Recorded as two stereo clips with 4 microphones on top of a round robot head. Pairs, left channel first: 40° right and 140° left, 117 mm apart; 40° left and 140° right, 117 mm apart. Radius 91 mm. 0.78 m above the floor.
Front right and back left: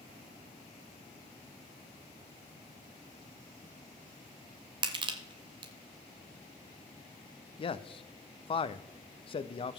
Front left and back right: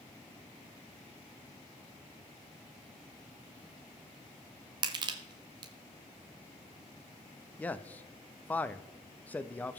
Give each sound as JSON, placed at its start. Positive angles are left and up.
{"t": 4.8, "sound": "crushing", "azimuth_deg": 180, "distance_m": 0.6}
{"t": 7.6, "sound": "a man speaking", "azimuth_deg": -30, "distance_m": 0.6}